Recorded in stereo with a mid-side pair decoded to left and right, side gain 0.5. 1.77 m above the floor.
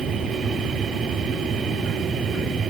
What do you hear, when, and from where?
0.0 s a machine running: 50° right